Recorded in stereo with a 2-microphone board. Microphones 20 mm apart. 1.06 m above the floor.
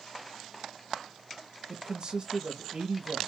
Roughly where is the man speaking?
Right.